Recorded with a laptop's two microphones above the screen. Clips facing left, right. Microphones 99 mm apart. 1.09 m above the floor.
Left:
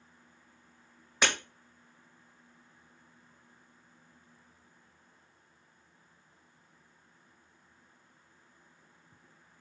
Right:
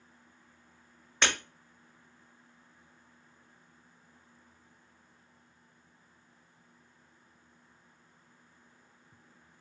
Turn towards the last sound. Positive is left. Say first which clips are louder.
# left 1 dB
turn(degrees=5)  # may be behind; listen again after turning